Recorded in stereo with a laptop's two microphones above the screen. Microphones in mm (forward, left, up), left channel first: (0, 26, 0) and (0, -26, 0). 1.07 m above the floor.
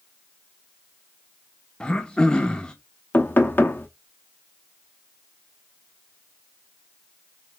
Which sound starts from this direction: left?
Knocking, at 3.1 s.